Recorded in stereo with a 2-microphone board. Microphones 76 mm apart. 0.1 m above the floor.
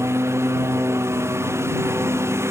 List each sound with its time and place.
0.0 s a lawn mower: 35° right (ahead or behind)